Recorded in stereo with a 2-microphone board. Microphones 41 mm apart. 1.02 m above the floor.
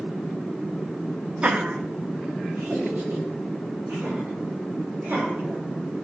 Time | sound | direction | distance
1.4 | laughter | 30° right (ahead or behind) | 0.6 m